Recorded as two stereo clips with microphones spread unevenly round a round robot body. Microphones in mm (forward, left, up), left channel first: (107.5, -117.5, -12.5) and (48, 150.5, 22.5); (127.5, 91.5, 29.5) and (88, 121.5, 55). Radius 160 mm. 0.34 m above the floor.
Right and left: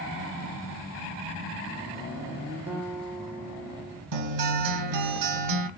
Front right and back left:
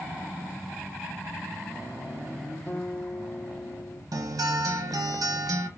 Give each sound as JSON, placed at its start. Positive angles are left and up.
{"t": 2.7, "sound": "a guitar", "azimuth_deg": 20, "distance_m": 2.0}
{"t": 4.1, "sound": "a guitar", "azimuth_deg": 135, "distance_m": 1.0}